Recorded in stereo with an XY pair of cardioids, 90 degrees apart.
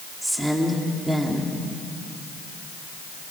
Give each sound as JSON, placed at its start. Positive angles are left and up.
{"t": 0.2, "sound": "a woman speaking", "azimuth_deg": -10, "distance_m": 3.0}